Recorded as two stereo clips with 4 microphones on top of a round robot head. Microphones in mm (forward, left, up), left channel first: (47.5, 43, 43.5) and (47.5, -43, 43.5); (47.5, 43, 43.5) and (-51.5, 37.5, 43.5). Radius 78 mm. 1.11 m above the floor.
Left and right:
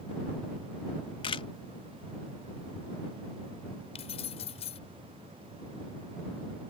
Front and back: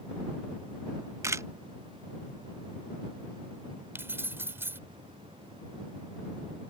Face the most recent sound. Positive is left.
turn(degrees=115)